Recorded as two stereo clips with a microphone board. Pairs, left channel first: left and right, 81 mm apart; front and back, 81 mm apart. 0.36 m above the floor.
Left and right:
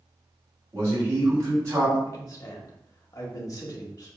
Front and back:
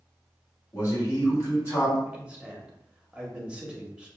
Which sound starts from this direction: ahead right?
A man speaking, at 0.7 s.